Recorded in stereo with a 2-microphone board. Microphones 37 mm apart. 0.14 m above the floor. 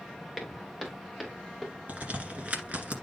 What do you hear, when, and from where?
0.4 s footsteps: 15° right (ahead or behind), 3 m; by 1.7 s 10° right (ahead or behind), 4 m
1.9 s a crack: 45° right (ahead or behind), 2.0 m